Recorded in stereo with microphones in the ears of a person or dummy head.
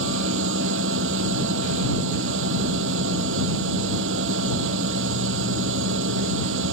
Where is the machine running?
80° right.